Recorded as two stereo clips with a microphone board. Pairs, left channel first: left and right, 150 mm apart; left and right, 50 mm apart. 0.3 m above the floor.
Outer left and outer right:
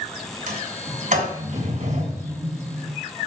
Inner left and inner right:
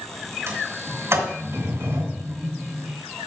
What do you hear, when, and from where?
0.5 s a sliding door: 60° right (ahead or behind), 3 m